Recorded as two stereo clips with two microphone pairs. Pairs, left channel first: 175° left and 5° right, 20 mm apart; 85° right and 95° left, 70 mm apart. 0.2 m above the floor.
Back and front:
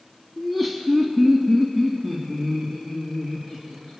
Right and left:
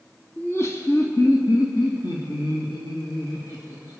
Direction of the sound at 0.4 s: 75° right.